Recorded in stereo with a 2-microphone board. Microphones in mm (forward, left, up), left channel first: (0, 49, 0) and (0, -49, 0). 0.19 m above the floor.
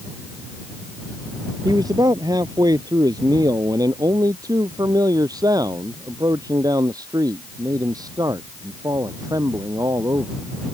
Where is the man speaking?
40° right (ahead or behind).